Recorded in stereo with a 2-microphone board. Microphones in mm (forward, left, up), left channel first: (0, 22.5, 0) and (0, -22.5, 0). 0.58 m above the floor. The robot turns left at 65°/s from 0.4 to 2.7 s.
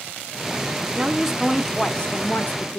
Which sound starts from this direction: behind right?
A woman speaking, at 0.8 s.